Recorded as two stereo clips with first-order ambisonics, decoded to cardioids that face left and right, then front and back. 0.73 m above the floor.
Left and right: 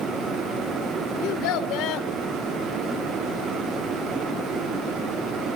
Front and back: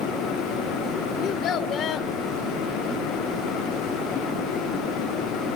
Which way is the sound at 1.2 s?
60° left.